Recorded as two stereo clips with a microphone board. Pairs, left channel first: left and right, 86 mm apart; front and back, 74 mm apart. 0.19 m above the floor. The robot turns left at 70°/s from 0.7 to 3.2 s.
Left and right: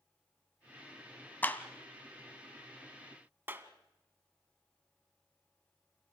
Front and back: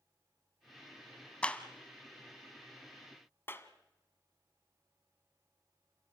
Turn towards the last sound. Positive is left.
turn(degrees=-40)